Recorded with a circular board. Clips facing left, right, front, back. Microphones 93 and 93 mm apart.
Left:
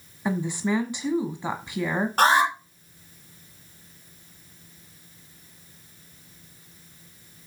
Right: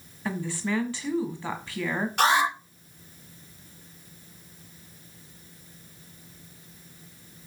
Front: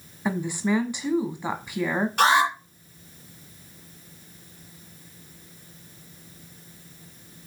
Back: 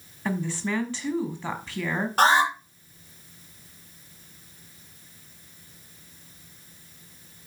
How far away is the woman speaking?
About 1.1 m.